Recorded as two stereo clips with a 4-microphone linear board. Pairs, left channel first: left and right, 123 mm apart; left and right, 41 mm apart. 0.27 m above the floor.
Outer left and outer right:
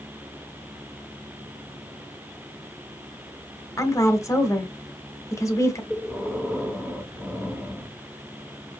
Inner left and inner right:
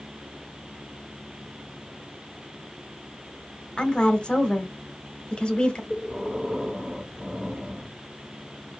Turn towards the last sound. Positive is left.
turn(degrees=0)  # may be behind; listen again after turning